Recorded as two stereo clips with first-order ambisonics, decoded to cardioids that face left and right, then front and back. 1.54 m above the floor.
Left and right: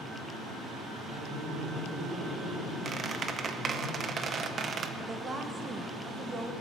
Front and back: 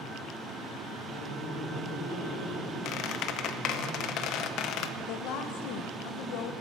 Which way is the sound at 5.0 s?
15° right.